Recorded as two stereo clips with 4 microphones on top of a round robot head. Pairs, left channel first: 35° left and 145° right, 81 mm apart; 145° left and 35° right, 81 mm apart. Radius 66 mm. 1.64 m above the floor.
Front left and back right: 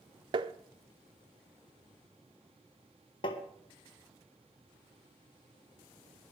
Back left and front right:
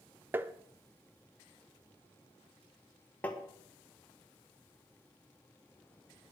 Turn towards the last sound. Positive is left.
turn(degrees=70)